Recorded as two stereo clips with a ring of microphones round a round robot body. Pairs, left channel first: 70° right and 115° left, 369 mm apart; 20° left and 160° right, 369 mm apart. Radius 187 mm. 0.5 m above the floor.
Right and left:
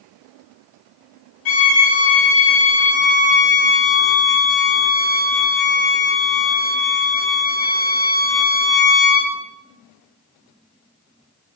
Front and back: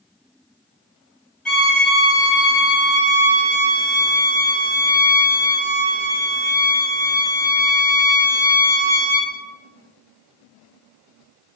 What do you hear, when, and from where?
1.4 s a violin: 65° right, 4 m